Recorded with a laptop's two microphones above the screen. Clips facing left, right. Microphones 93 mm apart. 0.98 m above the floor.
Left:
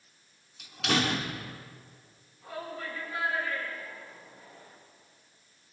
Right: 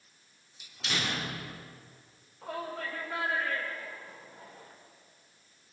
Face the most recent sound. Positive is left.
turn(degrees=-75)  # may be behind; listen again after turning